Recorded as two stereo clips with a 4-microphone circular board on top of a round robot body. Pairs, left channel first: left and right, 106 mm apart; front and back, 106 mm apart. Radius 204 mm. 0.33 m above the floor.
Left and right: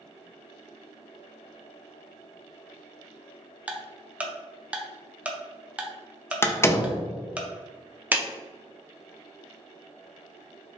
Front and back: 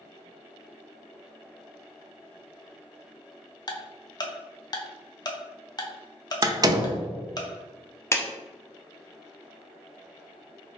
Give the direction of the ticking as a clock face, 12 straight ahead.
1 o'clock.